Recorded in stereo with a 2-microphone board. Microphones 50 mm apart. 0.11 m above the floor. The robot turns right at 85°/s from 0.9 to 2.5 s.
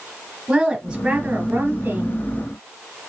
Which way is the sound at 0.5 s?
150° right.